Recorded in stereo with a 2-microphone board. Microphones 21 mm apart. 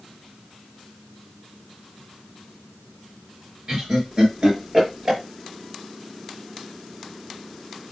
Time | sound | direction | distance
3.7 | laughter | 50° right (ahead or behind) | 3 m